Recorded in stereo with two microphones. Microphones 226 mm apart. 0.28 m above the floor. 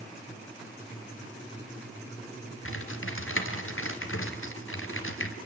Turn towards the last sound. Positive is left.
turn(degrees=65)  # may be behind; listen again after turning